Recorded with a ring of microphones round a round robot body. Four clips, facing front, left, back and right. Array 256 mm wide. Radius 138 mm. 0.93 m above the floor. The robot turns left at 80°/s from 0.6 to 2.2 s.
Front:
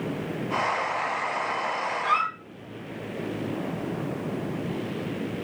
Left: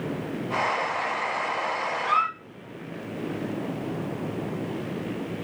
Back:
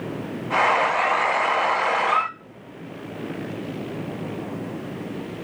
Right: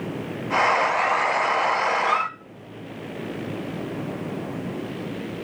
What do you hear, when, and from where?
2.0 s a squeak: 10° left, 3 m; by 2.3 s 5° right, 3 m